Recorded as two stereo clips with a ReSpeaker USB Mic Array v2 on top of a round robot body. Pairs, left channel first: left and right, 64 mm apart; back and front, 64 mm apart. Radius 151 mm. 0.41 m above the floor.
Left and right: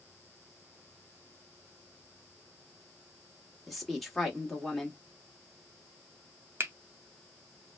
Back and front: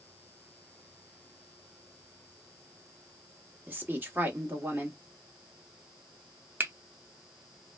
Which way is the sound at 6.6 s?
50° right.